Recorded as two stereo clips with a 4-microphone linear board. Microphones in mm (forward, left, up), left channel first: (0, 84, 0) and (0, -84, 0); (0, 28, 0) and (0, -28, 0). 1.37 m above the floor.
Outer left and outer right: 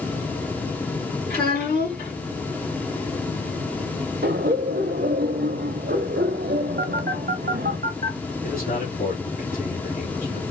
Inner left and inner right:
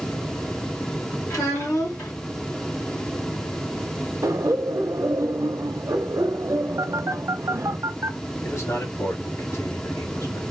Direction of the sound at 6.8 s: 75° right (ahead or behind).